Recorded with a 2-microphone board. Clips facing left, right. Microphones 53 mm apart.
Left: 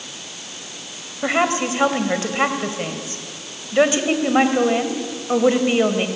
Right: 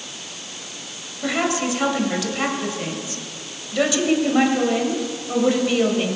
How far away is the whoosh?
No whoosh in this recording.